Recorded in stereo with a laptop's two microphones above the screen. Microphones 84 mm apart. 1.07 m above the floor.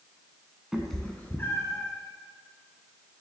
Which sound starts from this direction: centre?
A cat meowing, at 0.7 s.